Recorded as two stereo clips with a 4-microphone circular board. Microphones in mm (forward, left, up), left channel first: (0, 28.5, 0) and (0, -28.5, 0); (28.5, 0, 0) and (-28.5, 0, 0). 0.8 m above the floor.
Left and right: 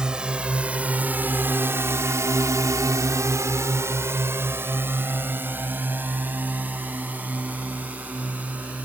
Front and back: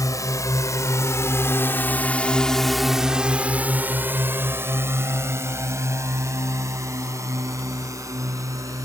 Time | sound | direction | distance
0.0 | a drone | 15° right | ?